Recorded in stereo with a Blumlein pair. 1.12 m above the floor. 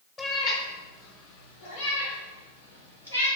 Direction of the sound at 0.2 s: 20° left.